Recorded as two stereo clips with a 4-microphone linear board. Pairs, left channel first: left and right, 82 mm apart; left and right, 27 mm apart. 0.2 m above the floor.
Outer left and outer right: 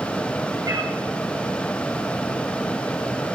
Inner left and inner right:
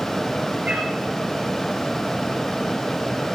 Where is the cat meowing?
45° right (ahead or behind), 6 m.